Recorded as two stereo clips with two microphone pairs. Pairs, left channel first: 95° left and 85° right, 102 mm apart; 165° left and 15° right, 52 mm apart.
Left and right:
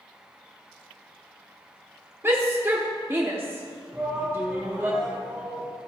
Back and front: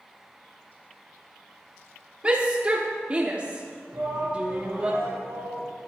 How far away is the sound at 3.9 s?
About 4 m.